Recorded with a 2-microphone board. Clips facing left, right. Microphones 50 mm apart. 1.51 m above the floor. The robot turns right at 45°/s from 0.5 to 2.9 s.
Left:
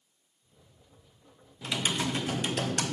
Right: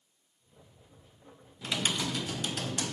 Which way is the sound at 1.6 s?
5° left.